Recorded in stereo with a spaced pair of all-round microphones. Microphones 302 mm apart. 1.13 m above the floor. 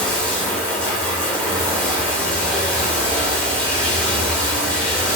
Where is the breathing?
I don't hear breathing.